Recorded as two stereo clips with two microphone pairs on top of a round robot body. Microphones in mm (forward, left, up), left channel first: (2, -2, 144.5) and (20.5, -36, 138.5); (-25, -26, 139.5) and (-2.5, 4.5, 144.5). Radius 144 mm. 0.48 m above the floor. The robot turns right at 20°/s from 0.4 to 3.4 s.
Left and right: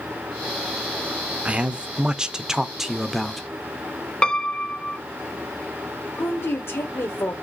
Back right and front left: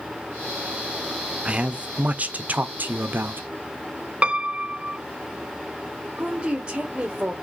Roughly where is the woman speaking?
Behind left.